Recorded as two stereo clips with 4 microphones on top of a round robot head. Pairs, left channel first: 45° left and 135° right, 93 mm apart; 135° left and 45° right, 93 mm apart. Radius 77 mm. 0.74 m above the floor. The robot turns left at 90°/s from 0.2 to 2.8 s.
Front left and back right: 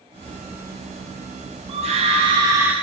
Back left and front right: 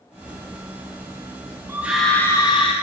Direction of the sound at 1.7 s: 110° right.